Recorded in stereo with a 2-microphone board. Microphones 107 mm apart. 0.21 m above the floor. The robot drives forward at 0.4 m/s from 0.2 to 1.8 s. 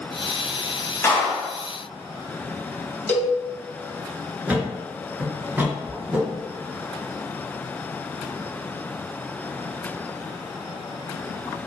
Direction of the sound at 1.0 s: 25° left (ahead or behind).